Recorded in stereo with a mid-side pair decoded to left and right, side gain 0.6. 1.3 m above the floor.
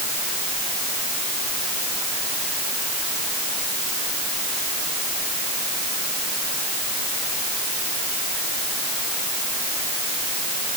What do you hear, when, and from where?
Only background noise.